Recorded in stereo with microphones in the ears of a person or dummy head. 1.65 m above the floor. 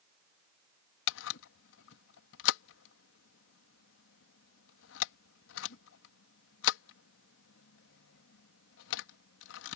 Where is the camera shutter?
75° left (ahead or behind).